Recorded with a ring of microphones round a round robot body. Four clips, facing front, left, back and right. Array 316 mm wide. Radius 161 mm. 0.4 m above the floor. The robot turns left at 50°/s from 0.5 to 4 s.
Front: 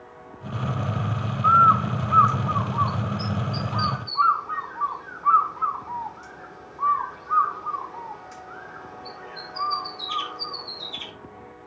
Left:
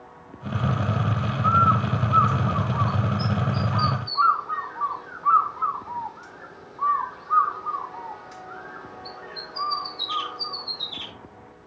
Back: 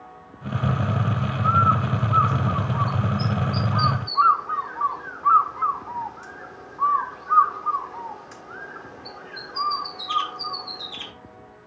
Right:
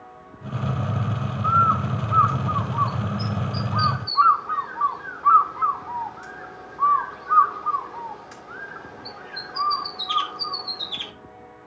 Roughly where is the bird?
Ahead.